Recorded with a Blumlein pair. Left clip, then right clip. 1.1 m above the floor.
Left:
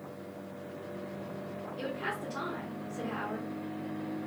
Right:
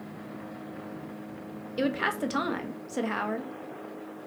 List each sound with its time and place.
1.8 s a woman speaking: 50° right, 0.6 m